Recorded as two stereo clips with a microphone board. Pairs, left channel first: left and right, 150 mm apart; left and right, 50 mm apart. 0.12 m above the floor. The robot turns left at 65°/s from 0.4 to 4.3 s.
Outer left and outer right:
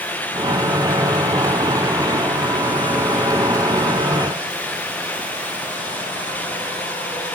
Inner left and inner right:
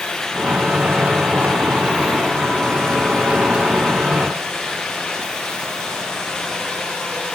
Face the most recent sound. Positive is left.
No sound to turn to.